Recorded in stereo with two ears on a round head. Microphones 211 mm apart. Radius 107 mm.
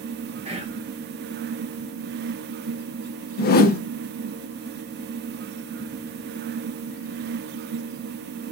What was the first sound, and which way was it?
Whispering, 25° right (ahead or behind).